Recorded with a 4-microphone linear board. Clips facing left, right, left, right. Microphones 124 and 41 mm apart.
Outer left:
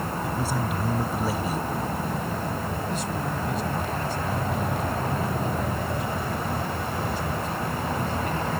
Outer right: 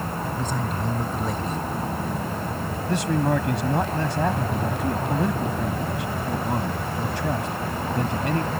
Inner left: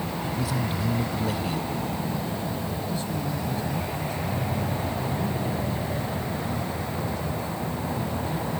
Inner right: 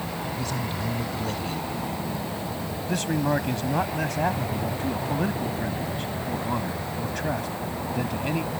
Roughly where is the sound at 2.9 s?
Right.